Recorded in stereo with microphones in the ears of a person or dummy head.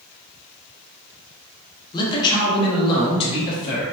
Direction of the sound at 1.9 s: 25° left (ahead or behind).